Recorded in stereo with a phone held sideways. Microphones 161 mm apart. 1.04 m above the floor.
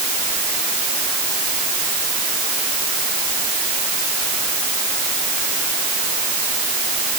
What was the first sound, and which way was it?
Only background noise.